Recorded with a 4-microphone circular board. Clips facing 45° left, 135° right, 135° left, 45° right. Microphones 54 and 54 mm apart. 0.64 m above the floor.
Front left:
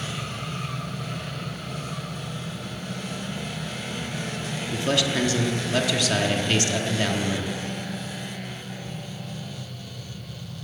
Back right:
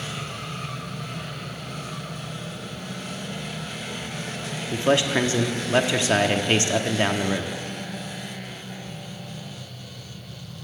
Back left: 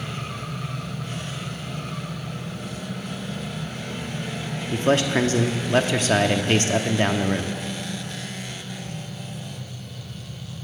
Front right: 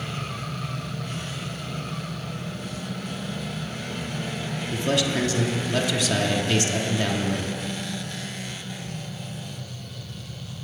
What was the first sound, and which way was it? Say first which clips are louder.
A man speaking: back right 4 dB, back left 4 dB; 170° left.